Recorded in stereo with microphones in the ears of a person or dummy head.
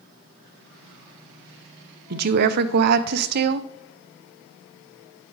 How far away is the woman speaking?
About 0.5 m.